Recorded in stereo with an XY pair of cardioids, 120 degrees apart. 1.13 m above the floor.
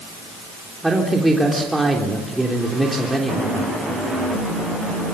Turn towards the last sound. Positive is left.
turn(degrees=-5)